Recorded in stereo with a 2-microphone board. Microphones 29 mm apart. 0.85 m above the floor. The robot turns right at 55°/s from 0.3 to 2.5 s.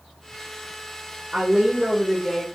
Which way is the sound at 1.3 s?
65° right.